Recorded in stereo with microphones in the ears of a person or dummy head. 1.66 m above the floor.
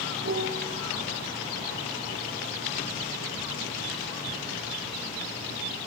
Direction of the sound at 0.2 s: 75° right (ahead or behind).